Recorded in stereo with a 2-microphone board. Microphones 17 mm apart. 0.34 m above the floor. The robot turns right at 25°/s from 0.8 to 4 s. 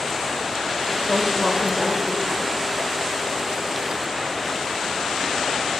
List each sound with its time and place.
1.1 s a woman speaking: 25° right (ahead or behind), 1.1 m; by 2.5 s 10° right (ahead or behind), 1.1 m